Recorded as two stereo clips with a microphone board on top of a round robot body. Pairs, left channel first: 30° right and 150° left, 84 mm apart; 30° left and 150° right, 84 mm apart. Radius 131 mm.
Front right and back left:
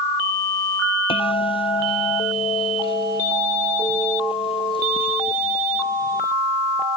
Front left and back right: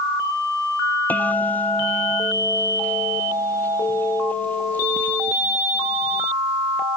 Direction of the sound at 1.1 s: 40° right.